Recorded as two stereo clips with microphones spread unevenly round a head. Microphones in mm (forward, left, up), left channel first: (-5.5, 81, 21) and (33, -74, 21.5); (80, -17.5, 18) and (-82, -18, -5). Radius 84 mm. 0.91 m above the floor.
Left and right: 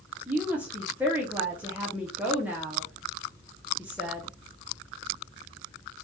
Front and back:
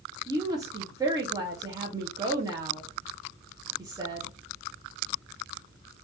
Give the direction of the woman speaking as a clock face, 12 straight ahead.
5 o'clock.